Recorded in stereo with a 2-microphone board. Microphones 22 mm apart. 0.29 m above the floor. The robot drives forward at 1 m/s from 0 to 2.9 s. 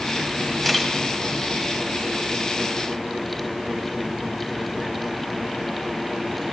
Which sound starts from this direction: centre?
A camera shutter, at 0.6 s.